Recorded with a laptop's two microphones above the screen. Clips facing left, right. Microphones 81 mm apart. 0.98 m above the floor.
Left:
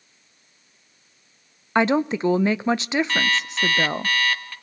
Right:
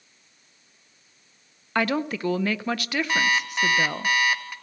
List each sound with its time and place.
1.8 s a woman speaking: 20° left (ahead or behind), 0.6 m
3.1 s an alarm clock: 15° right (ahead or behind), 1.9 m